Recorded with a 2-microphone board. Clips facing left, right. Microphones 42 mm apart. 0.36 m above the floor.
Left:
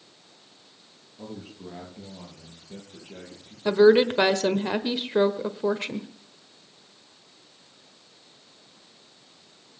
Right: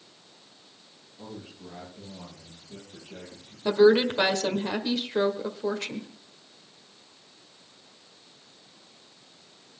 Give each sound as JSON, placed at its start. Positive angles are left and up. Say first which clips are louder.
{"t": 1.2, "sound": "a man speaking", "louder": "left 3 dB", "side_deg": 30, "distance_m": 7.5}
{"t": 3.6, "sound": "a woman speaking", "louder": "left 2 dB", "side_deg": 20, "distance_m": 1.2}